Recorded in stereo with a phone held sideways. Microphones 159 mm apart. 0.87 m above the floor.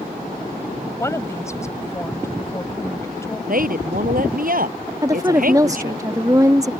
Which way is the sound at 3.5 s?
65° right (ahead or behind).